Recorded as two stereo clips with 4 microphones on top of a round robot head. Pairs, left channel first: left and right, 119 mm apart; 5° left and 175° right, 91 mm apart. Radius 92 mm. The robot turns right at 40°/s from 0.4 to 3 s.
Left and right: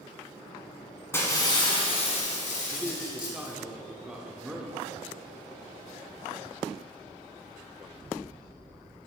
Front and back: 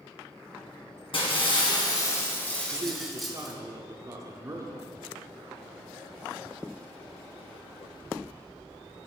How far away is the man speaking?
About 1.0 m.